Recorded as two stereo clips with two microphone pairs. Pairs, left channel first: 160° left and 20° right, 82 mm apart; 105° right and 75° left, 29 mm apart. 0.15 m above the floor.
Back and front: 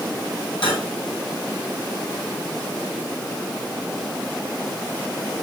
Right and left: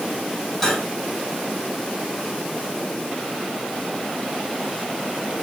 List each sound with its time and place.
0.6 s cutlery clinking: 170° left, 4 m